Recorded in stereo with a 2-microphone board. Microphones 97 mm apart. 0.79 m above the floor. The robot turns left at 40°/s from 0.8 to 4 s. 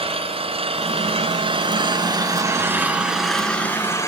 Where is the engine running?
80° right, 3 m; by 4.1 s 150° left, 3 m.